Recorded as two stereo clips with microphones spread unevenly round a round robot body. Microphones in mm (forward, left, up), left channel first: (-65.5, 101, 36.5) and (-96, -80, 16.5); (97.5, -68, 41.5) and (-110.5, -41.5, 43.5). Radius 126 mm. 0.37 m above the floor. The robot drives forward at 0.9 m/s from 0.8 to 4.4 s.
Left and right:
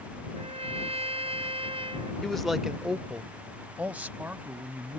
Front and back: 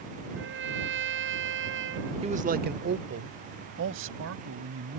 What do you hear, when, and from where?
0.3 s a trumpet: 155° right; by 2.1 s 160° right
2.2 s a man speaking: straight behind